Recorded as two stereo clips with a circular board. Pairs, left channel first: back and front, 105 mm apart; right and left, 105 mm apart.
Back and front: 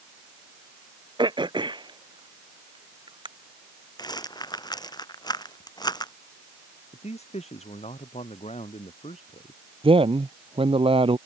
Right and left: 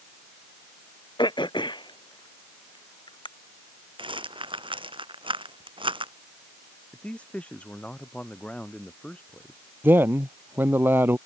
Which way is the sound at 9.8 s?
20° left.